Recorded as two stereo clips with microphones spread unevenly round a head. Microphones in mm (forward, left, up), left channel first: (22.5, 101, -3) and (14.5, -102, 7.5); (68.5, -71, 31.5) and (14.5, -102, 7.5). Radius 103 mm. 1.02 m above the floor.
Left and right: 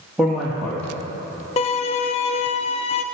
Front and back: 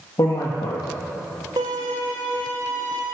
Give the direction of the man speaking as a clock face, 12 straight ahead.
12 o'clock.